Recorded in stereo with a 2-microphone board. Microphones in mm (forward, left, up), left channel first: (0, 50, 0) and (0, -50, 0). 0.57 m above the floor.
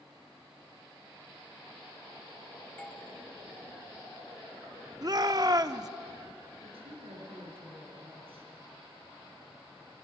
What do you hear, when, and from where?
2.8 s a doorbell: 15° left (ahead or behind), 1.8 m
5.0 s a shout: 40° right (ahead or behind), 0.9 m
6.6 s a woman speaking: 70° right (ahead or behind), 6 m